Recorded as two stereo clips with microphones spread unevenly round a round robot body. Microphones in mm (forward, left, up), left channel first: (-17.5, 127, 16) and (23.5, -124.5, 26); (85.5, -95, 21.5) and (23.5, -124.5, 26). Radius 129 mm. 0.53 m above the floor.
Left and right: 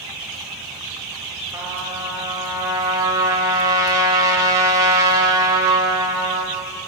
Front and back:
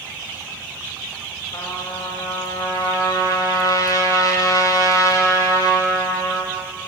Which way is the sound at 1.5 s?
5° right.